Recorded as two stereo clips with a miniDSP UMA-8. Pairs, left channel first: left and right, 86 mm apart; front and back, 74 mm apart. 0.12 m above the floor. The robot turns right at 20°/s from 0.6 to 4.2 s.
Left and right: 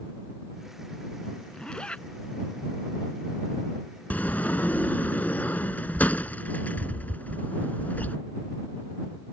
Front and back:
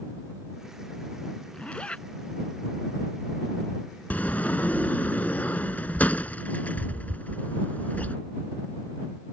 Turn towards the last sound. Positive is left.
turn(degrees=45)